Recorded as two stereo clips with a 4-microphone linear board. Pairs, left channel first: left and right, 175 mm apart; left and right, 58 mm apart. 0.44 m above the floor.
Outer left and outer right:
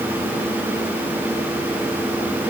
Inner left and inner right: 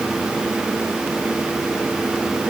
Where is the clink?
I don't hear a clink.